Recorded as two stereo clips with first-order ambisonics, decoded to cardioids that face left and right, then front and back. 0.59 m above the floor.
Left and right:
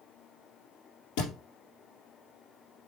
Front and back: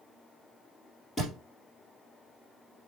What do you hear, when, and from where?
1.2 s a thud: 75° left, 2.5 m